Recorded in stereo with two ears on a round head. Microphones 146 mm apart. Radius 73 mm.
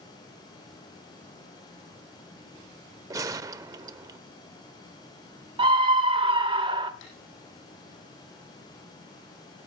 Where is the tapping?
85° left, 7 m.